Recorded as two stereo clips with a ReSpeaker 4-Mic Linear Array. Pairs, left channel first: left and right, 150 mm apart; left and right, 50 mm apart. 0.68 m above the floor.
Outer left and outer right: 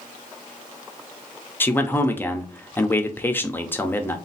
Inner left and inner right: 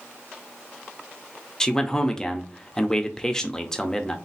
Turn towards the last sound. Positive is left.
turn(degrees=15)  # may be behind; listen again after turning